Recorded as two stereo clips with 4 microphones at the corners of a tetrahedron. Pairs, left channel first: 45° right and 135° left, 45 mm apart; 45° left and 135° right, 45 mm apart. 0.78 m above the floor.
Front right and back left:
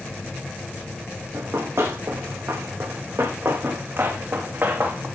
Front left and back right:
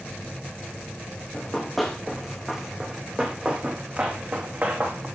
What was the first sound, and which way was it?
Running footsteps, 125° left.